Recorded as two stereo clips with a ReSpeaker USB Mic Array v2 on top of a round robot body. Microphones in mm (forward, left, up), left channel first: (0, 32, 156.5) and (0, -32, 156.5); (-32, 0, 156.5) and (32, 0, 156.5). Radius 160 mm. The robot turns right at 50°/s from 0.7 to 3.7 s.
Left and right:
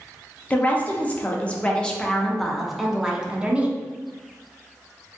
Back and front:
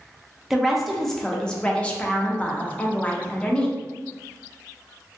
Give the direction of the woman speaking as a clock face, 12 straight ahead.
9 o'clock.